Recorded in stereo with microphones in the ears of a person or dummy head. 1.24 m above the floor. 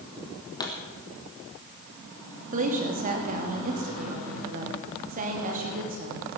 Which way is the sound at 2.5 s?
45° right (ahead or behind).